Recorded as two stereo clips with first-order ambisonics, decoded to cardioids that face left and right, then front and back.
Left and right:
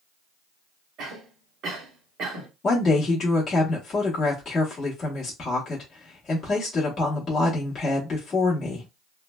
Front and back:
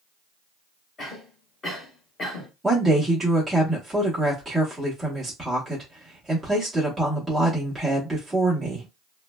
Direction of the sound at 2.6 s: 95° left.